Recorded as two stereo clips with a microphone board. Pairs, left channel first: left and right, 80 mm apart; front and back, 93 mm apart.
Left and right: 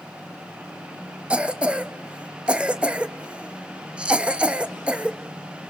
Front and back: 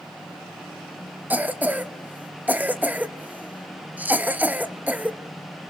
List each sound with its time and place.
1.3 s a cough: 140° right, 0.8 m